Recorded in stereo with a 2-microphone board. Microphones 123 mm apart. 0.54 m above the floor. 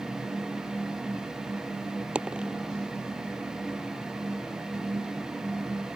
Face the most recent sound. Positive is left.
turn(degrees=-10)  # may be behind; listen again after turning